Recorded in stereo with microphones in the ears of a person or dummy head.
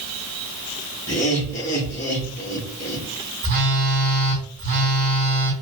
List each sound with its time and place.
1.1 s laughter: 10° left (ahead or behind), 2 m
3.4 s a phone buzzing: 45° right (ahead or behind), 2 m